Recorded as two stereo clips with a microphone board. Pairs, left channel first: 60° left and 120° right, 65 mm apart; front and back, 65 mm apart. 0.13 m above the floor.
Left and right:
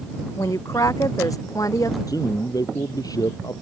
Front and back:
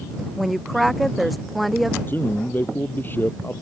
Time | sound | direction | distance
0.4 | a woman speaking | 90° left | ?
2.1 | a man speaking | 55° left | ?